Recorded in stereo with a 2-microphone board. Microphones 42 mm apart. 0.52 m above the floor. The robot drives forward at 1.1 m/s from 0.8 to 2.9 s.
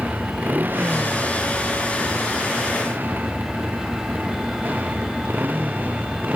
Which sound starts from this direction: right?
A motorcycle, at 0.0 s.